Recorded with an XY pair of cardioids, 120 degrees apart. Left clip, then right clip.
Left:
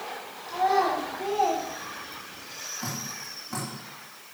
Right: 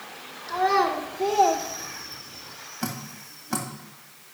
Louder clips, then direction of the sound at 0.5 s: Right 1 dB; 35° right.